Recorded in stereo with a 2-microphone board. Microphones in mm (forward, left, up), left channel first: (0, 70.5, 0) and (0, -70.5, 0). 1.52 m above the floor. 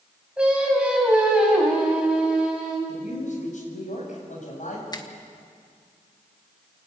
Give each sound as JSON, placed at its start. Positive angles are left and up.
{"t": 0.4, "sound": "singing", "side_deg": -5, "distance_m": 4.5}
{"t": 2.9, "sound": "a man speaking", "side_deg": 60, "distance_m": 7.5}
{"t": 4.9, "sound": "a finger snap", "side_deg": 30, "distance_m": 1.4}